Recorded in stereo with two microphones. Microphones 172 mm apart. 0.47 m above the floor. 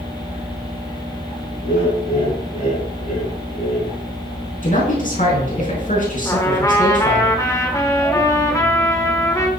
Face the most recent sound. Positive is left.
turn(degrees=20)  # may be behind; listen again after turning